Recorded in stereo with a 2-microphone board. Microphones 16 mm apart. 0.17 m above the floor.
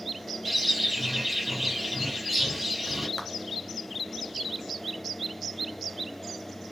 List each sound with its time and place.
0.5 s a bird: 10° right (ahead or behind), 5.5 m
3.2 s a clap: 15° left (ahead or behind), 2.5 m